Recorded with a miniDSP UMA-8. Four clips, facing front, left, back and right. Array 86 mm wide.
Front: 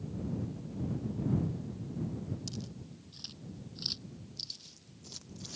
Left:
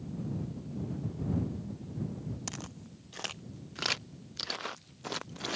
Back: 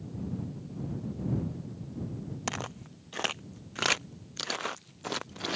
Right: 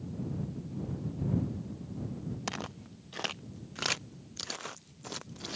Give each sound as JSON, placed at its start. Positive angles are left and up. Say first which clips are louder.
{"t": 2.5, "sound": "footsteps", "louder": "right 5 dB, back 7 dB", "azimuth_deg": -160}